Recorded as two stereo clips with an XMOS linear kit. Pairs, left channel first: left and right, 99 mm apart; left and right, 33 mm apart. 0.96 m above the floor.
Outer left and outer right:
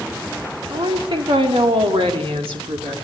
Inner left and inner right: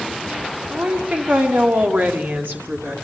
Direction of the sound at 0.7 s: 50° right (ahead or behind).